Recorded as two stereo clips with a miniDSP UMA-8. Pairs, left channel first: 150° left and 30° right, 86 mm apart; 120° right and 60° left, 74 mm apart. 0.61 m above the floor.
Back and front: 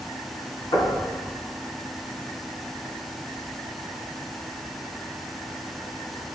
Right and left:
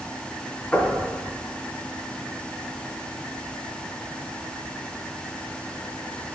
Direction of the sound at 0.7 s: 165° left.